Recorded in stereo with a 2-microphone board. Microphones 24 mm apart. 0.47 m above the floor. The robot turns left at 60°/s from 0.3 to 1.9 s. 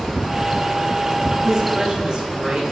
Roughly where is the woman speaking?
Centre.